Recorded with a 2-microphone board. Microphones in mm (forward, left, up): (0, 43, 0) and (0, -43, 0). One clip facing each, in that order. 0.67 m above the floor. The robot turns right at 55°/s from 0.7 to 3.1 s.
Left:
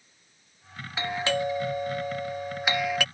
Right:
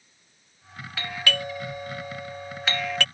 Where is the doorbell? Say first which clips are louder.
Left 3 dB; 20° left (ahead or behind); by 3.0 s 5° left (ahead or behind).